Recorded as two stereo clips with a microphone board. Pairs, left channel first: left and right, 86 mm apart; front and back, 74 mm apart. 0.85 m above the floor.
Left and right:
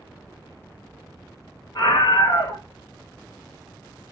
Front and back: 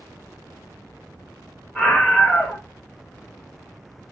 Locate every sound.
1.8 s a scream: 90° left, 0.8 m